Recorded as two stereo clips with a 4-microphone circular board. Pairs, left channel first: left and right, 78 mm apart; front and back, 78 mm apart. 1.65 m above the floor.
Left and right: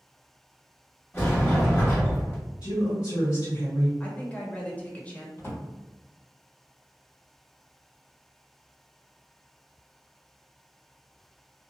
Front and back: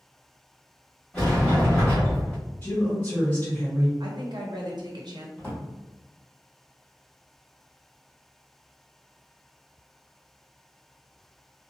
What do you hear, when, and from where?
1.1 s a sliding door: 65° left, 1.5 m
2.6 s a woman speaking: 60° left, 1.8 m
4.0 s a woman speaking: 160° left, 0.8 m
5.4 s a drawer: 55° left, 1.7 m